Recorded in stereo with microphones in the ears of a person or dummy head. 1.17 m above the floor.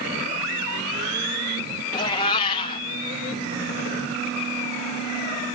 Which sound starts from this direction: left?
A cat meowing, at 1.9 s.